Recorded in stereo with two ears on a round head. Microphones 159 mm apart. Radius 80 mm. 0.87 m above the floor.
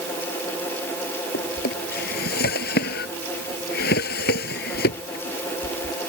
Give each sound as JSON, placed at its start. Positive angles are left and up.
{"t": 1.3, "sound": "a drawer", "side_deg": 60}